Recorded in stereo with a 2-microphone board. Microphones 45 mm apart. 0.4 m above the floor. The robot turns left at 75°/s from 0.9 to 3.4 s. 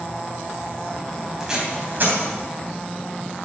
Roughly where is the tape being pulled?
Centre.